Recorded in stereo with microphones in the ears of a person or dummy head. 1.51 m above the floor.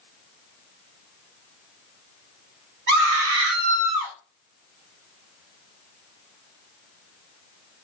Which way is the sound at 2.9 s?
45° right (ahead or behind).